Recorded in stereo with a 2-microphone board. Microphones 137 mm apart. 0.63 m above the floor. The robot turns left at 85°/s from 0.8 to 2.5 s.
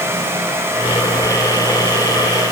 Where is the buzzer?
I don't hear a buzzer.